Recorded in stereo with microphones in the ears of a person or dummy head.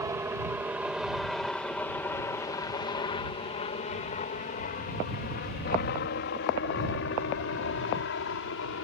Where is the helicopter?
10° right (ahead or behind); by 8.8 s 70° left (ahead or behind).